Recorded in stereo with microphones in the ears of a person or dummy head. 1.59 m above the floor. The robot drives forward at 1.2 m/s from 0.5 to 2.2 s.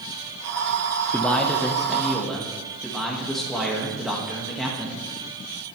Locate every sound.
1.1 s a man speaking: 5° left (ahead or behind), 0.8 m